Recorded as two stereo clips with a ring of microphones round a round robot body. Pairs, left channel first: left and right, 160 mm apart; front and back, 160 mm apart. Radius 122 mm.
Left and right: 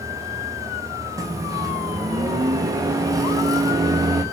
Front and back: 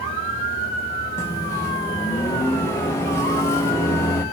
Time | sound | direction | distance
1.2 | a microwave | 50° right | 0.9 m